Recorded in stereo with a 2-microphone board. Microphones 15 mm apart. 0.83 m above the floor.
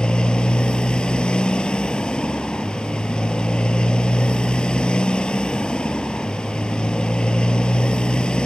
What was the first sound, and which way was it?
A motorcycle, 90° left.